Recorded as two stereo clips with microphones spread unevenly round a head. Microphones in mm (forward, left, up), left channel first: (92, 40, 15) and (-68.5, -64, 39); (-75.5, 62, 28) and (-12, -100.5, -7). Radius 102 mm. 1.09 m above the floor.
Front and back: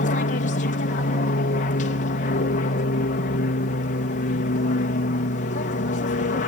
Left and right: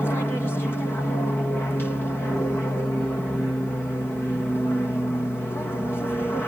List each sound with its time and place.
0.0 s an aircraft: 25° left